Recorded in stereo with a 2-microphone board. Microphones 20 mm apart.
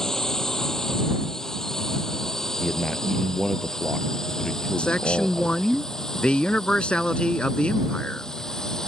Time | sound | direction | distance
0.0 | a drone | 25° left (ahead or behind) | ?
2.6 | a man speaking | 20° left (ahead or behind) | ?
4.8 | a man speaking | 60° left (ahead or behind) | ?